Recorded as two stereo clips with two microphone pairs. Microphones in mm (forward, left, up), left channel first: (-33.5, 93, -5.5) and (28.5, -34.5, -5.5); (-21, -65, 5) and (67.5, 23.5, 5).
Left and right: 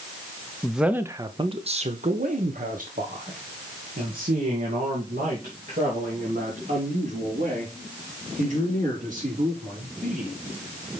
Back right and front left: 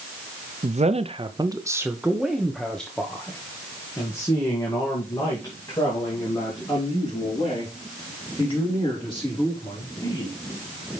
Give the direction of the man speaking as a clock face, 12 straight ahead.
11 o'clock.